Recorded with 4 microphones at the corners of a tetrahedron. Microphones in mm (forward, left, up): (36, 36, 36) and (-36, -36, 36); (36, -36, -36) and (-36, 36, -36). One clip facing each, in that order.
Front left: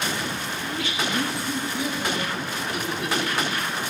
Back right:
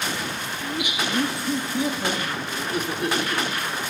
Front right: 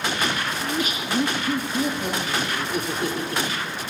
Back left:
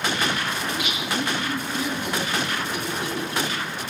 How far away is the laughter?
About 0.7 m.